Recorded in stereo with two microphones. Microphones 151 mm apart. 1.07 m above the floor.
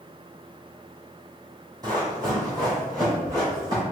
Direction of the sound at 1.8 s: 25° right (ahead or behind).